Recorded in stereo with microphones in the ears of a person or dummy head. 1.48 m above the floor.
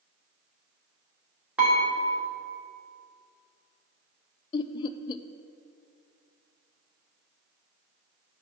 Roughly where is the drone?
No drone in this recording.